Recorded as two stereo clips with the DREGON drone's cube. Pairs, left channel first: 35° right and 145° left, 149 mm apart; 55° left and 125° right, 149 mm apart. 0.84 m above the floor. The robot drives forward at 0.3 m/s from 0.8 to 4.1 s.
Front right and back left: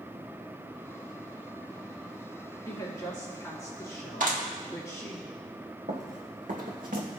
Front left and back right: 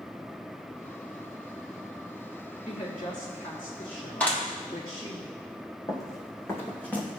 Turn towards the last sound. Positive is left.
turn(degrees=135)